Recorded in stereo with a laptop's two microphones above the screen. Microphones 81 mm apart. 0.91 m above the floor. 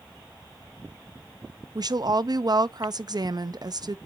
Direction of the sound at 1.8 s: 55° right (ahead or behind).